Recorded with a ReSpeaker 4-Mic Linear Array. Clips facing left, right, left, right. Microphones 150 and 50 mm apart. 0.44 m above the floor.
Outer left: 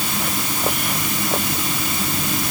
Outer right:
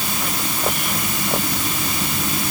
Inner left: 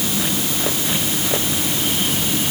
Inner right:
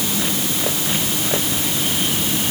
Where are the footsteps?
I don't hear footsteps.